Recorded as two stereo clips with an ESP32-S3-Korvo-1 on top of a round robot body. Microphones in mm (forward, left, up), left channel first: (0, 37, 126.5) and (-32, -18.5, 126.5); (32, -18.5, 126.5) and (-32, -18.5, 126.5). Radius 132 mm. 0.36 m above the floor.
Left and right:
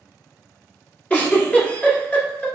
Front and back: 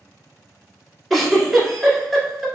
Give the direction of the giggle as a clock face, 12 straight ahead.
9 o'clock.